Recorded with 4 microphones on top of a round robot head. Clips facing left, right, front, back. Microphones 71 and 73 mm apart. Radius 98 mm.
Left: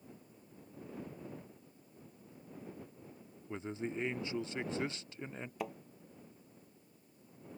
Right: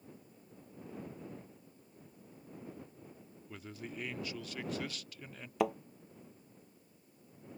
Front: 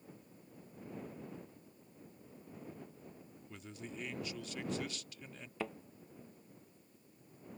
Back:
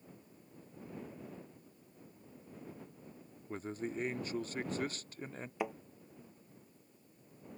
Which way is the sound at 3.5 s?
145° left.